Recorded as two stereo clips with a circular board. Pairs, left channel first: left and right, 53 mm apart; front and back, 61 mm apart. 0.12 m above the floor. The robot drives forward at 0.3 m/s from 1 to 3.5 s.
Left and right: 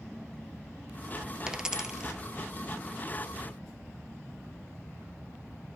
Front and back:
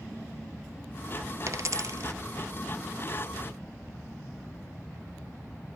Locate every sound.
1.5 s a dropped coin: 165° right, 1.0 m; by 2.2 s 170° right, 1.1 m